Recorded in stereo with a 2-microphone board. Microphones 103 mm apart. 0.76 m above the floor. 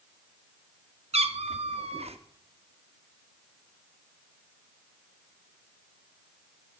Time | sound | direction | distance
1.1 | a cat meowing | 85° right | 0.6 m